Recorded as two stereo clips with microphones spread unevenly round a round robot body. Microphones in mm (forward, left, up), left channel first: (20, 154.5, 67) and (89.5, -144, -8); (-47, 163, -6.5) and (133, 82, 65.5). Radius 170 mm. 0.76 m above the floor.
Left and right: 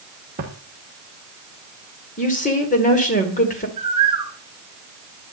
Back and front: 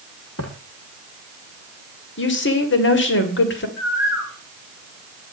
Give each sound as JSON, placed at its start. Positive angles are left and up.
{"t": 0.4, "sound": "footsteps", "azimuth_deg": -145, "distance_m": 2.0}
{"t": 2.2, "sound": "a woman speaking", "azimuth_deg": 175, "distance_m": 2.5}
{"t": 3.8, "sound": "a bird", "azimuth_deg": -155, "distance_m": 2.5}